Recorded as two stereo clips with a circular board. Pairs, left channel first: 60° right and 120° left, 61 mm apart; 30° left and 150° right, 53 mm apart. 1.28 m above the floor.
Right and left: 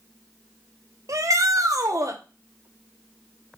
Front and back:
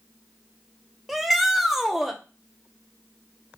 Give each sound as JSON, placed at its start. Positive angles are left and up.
{"t": 1.1, "sound": "a shout", "azimuth_deg": 125, "distance_m": 1.2}